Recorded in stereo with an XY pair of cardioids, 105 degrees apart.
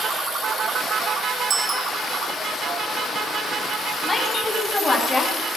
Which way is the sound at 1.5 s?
55° right.